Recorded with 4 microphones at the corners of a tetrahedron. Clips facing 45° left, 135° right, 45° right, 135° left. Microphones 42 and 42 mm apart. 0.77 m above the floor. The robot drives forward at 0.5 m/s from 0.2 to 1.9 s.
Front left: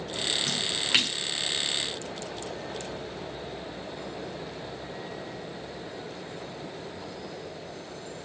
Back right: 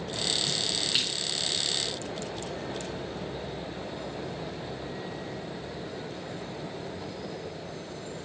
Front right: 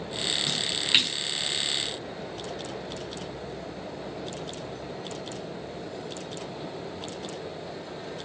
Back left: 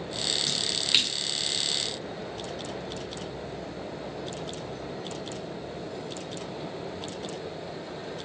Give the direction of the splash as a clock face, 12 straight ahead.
11 o'clock.